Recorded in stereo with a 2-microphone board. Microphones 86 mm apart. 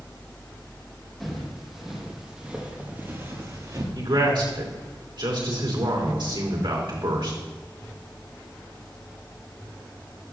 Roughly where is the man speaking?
Right.